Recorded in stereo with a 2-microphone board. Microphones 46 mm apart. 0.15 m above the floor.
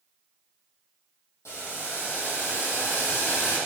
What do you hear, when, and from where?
1.4 s boiling: 80° left, 3.5 m